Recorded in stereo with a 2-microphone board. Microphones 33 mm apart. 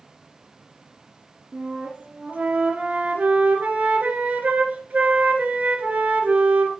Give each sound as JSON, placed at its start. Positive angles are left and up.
{"t": 1.5, "sound": "a flute", "side_deg": -55, "distance_m": 2.0}